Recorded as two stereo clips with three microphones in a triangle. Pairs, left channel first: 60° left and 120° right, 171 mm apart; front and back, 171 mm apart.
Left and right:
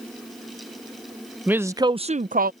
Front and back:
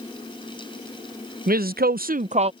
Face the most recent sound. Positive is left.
turn(degrees=-130)